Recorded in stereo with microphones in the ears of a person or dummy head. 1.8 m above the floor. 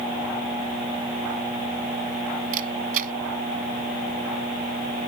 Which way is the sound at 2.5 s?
50° right (ahead or behind).